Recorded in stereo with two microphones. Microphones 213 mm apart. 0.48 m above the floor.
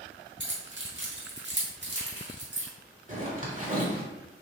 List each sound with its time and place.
0.4 s keys jangling: 60° right (ahead or behind), 1.0 m
3.1 s a zipper: 40° right (ahead or behind), 1.2 m